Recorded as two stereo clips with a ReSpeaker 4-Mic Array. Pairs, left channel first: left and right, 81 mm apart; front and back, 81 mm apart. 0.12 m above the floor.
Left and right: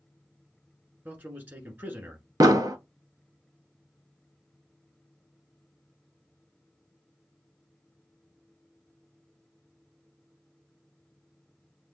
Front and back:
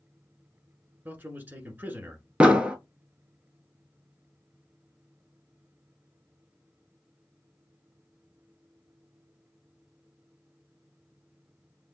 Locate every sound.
1.1 s a man speaking: 135° right, 1.5 m
2.4 s an explosion: 110° right, 0.6 m